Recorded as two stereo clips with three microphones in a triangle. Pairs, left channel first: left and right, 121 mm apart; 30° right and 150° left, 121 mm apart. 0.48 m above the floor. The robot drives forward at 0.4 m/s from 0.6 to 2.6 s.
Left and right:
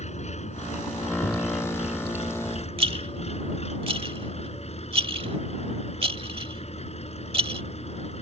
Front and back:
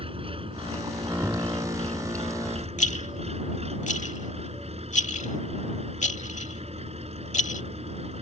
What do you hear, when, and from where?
0.0 s an engine running: 110° left; by 8.2 s 120° left
1.2 s knocking: 60° left
2.8 s a rattle: 45° right